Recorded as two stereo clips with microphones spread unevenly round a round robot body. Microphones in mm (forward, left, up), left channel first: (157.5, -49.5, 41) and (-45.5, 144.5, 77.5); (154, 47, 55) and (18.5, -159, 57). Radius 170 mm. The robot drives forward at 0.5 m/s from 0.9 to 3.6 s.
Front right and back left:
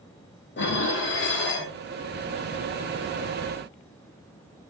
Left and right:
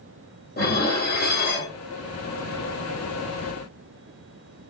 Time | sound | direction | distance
0.6 | dishes clattering | 5° left | 1.5 m